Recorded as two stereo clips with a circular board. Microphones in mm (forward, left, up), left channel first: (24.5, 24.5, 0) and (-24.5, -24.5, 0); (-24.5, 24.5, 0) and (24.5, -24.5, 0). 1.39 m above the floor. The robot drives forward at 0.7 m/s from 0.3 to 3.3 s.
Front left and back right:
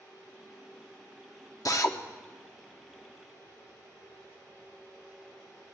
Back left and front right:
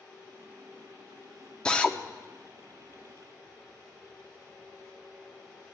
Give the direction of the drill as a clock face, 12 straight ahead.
10 o'clock.